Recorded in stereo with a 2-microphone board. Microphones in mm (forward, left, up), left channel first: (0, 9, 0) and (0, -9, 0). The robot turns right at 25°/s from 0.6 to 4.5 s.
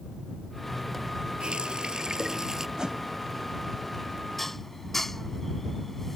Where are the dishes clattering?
10° left (ahead or behind); by 6.2 s 15° left (ahead or behind).